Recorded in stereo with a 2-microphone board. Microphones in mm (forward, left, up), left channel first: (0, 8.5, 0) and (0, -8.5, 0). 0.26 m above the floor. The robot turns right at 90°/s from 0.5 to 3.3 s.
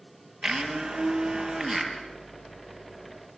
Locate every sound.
0.4 s a blender: 105° right, 4 m; by 1.9 s 20° left, 4 m